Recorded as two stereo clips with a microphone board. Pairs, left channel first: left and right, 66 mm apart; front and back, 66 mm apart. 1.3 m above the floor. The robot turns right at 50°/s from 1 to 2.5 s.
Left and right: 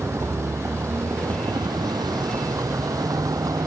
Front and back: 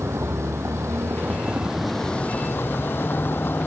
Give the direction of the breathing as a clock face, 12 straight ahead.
No breathing in this recording.